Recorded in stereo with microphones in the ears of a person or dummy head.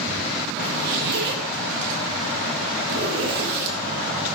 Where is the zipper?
55° right (ahead or behind), 1.6 m.